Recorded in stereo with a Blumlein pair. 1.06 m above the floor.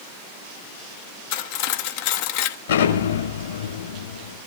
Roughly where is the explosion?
Ahead left.